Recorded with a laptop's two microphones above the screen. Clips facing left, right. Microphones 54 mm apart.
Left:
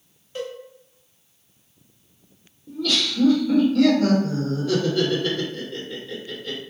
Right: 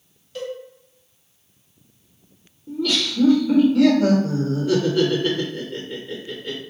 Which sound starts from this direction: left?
A cowbell, at 0.3 s.